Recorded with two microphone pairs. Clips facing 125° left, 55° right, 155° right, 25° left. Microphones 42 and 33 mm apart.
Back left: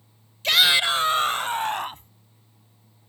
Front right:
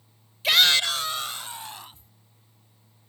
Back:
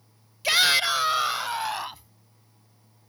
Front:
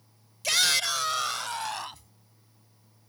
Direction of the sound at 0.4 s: 125° right.